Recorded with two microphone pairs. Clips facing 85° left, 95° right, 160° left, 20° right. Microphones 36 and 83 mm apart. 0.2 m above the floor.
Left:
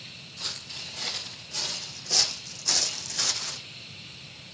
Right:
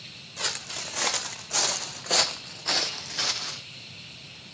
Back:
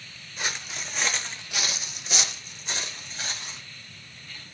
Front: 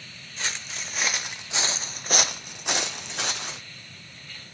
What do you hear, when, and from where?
0.4 s footsteps: 120° right, 1.2 m; by 3.6 s 15° right, 1.2 m